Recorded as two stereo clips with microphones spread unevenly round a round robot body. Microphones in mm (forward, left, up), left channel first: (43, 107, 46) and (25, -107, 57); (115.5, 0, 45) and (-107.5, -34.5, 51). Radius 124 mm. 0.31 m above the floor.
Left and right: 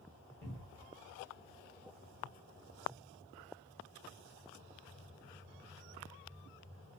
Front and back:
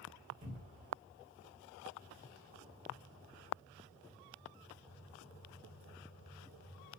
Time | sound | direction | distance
0.4 | a cupboard door | 160° left | 1.1 m